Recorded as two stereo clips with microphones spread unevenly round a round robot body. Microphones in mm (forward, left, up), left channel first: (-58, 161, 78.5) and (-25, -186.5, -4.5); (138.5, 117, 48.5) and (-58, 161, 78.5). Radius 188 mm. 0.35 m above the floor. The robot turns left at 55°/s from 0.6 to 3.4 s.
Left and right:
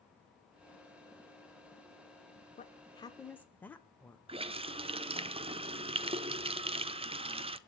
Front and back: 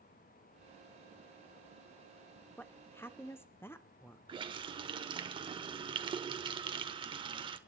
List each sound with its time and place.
2.6 s a woman speaking: 25° left, 0.8 m; by 4.2 s 20° right, 0.8 m
4.3 s a running tap: 130° right, 0.6 m